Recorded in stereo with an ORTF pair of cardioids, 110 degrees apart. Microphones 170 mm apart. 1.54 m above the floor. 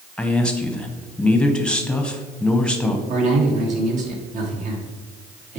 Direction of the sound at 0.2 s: 5° left.